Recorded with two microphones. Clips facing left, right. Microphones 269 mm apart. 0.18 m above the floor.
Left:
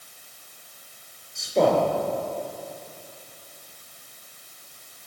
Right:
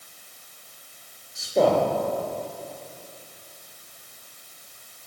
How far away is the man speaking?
About 4 m.